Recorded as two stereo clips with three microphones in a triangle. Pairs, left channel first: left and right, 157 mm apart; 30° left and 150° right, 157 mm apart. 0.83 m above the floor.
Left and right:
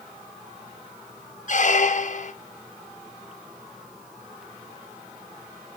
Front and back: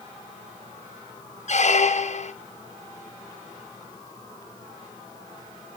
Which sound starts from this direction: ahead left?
A squeak, at 1.5 s.